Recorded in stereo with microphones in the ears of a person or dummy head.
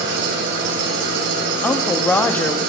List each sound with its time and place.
0.0 s an engine running: 65° right (ahead or behind), 4.5 m
1.6 s a woman speaking: 5° left (ahead or behind), 0.9 m